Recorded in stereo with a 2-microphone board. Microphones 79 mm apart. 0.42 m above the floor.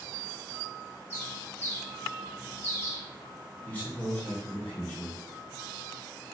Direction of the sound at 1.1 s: 30° left (ahead or behind).